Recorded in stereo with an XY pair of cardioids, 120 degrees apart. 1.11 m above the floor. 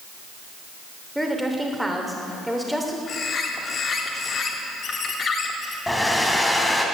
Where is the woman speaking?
5° right, 3 m.